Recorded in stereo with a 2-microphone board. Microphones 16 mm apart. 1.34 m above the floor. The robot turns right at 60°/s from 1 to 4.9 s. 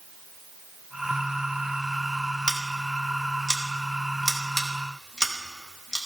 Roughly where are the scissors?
Right.